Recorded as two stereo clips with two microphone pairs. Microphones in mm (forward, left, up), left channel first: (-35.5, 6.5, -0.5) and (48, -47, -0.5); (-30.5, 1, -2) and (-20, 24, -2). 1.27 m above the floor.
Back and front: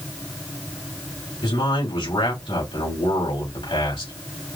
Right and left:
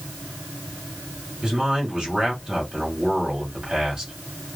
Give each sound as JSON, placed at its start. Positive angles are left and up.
{"t": 1.4, "sound": "a man speaking", "azimuth_deg": 125, "distance_m": 2.5}